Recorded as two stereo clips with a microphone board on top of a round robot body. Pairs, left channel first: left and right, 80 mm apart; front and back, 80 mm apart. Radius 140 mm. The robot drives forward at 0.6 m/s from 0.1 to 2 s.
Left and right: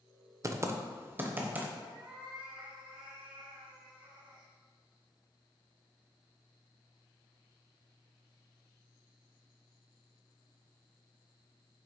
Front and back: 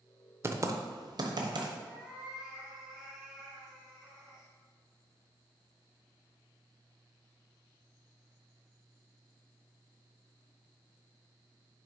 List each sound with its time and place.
0.4 s typing on a keyboard: 130° right, 0.8 m; by 1.7 s 160° right, 1.3 m
1.8 s a cat meowing: 95° right, 2.5 m; by 4.5 s 100° right, 2.5 m